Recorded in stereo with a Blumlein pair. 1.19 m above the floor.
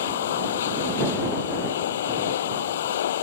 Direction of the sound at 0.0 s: 60° left.